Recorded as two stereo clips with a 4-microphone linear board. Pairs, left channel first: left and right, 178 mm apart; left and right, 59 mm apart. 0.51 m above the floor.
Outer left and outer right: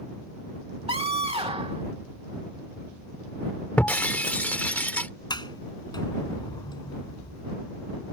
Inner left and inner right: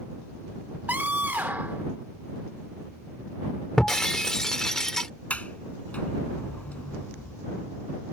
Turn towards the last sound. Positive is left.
turn(degrees=25)  # may be behind; listen again after turning